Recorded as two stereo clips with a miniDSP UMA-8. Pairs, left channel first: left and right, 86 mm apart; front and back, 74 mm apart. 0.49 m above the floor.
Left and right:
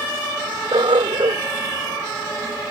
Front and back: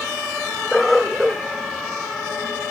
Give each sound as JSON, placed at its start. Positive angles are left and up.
{"t": 0.7, "sound": "a dog barking", "azimuth_deg": -90}